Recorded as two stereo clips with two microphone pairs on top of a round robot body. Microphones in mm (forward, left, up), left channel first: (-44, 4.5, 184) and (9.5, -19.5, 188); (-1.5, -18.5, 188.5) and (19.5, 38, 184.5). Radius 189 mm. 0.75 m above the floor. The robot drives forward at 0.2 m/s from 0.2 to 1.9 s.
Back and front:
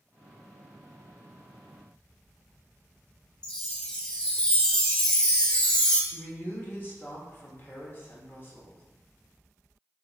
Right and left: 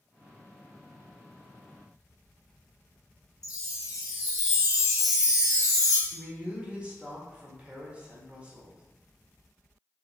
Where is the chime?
130° right, 0.8 m.